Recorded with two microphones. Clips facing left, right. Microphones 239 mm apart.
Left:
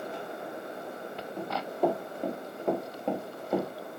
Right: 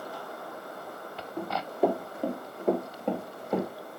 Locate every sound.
1.4 s running footsteps: 10° right (ahead or behind), 4 m; by 3.7 s 5° left (ahead or behind), 2.5 m